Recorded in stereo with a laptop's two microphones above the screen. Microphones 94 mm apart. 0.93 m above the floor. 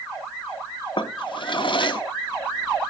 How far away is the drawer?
About 0.7 m.